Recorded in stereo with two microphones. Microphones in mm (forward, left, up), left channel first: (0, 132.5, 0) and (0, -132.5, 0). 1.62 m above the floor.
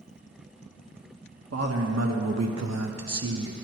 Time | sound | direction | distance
1.5 | a man speaking | 65° right (ahead or behind) | 1.1 m